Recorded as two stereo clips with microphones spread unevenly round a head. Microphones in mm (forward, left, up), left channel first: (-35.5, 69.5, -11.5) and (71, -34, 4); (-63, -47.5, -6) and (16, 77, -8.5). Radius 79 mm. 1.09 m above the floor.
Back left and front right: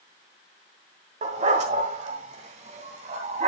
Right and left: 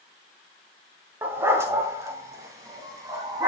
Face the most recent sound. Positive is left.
turn(degrees=-10)